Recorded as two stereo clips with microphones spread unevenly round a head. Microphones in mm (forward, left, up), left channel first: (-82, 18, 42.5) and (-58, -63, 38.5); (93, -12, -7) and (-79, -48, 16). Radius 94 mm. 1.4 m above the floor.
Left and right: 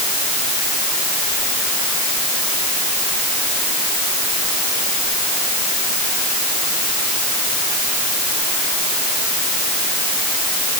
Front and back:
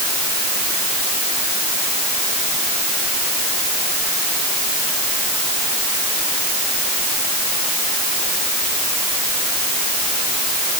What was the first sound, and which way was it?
Only background noise.